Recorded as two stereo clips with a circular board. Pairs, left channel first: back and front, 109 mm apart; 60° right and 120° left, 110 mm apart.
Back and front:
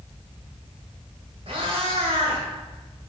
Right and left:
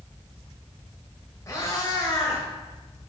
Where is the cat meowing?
5° right, 1.8 m.